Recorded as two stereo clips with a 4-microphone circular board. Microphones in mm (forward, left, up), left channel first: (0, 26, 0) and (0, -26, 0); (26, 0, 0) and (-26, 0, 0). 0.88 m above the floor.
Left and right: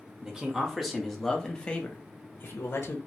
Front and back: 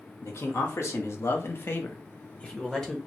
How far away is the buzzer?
I don't hear a buzzer.